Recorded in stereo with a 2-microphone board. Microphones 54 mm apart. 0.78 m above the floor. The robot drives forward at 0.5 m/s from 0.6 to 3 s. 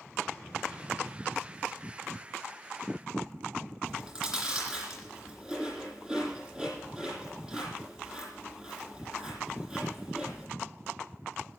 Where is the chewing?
10° right (ahead or behind), 10 m.